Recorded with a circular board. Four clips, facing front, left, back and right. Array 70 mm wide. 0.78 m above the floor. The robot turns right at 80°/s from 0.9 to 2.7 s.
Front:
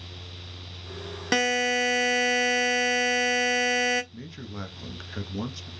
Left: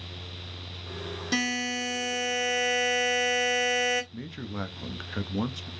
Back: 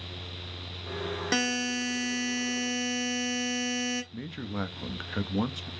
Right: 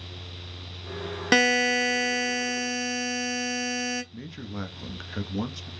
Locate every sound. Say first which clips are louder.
1.3 s a buzzer: right 8 dB, front 7 dB; 75° right, 0.7 m; by 4.0 s 35° left, 0.7 m
4.1 s a man speaking: left 1 dB, back 4 dB; 160° left, 0.5 m